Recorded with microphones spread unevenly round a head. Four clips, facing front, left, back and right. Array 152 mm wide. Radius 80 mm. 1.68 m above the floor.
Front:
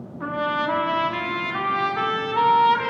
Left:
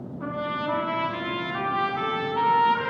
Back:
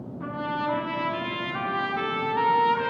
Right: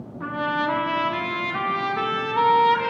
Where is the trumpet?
45° right, 1.3 m.